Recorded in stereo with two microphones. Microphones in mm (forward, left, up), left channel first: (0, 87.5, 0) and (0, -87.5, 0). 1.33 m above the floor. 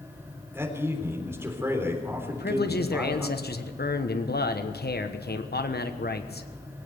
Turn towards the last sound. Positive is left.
turn(degrees=65)  # may be behind; listen again after turning